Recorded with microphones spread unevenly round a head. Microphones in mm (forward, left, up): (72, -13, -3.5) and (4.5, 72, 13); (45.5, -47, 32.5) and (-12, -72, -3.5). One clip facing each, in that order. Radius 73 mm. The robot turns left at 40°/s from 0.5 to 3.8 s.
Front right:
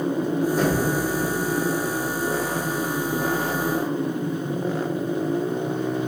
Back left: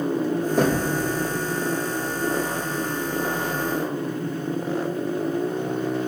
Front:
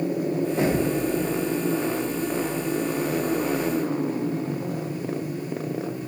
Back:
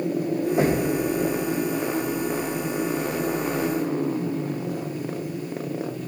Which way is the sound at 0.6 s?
115° left.